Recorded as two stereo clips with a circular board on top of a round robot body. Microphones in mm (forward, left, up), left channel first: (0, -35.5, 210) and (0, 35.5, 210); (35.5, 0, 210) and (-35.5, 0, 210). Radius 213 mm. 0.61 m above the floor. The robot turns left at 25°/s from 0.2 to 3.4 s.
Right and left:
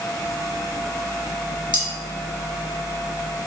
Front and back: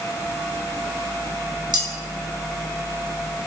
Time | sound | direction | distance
1.7 | cutlery clinking | 165° left | 1.0 m